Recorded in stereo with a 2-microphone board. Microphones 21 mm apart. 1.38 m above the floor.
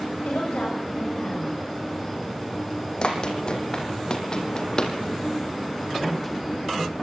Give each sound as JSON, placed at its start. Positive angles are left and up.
{"t": 0.2, "sound": "a woman speaking", "side_deg": 65, "distance_m": 7.5}
{"t": 3.0, "sound": "running footsteps", "side_deg": 45, "distance_m": 4.0}